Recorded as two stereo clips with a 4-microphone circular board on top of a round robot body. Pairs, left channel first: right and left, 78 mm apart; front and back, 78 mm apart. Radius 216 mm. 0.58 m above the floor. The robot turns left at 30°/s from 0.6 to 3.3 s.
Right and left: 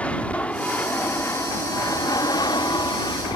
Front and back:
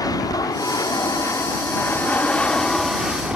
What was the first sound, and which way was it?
An aircraft, 20° right.